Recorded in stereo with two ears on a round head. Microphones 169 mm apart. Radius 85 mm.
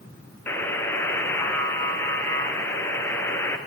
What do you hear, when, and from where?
0.5 s a buzzer: 10° left (ahead or behind), 2.5 m